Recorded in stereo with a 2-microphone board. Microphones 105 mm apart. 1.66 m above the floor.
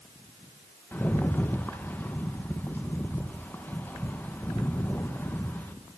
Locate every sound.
0.9 s a rattle: 15° left (ahead or behind), 2 m